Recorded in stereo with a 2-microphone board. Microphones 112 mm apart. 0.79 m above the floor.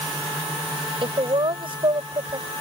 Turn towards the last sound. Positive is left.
turn(degrees=-50)  # may be behind; listen again after turning